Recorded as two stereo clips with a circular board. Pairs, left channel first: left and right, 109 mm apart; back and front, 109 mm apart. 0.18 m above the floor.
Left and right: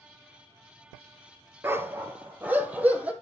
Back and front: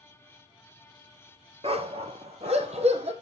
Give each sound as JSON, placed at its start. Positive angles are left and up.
{"t": 1.6, "sound": "a dog barking", "azimuth_deg": -20, "distance_m": 1.5}